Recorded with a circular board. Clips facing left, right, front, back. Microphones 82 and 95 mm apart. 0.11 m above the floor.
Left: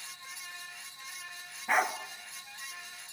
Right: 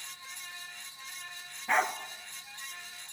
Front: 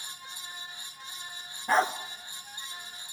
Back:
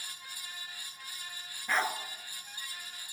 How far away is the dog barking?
About 0.6 m.